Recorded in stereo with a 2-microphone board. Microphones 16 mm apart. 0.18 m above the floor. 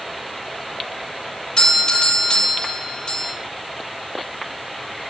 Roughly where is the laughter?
I don't hear laughter.